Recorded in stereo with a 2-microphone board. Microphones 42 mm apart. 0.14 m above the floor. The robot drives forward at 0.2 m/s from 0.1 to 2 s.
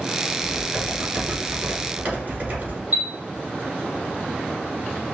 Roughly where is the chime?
Right.